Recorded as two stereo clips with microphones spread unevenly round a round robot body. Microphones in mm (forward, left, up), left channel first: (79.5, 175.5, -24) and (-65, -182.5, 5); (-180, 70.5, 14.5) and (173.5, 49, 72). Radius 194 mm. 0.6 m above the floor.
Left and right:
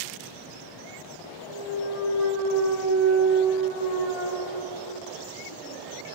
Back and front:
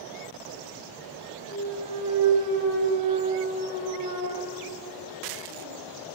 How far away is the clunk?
About 3 m.